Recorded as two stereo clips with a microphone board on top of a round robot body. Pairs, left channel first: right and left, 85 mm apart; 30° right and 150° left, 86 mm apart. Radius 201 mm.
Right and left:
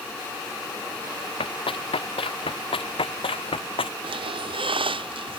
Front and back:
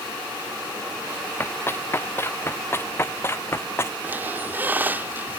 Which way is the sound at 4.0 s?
80° left.